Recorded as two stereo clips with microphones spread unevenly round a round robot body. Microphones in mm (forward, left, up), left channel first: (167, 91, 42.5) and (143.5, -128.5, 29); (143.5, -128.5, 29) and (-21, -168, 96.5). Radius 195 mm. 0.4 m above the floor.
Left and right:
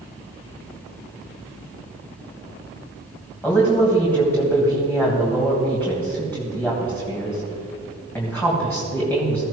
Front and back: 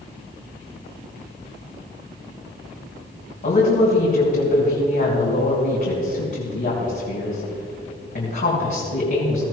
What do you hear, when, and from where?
3.4 s a woman speaking: 5° left, 3 m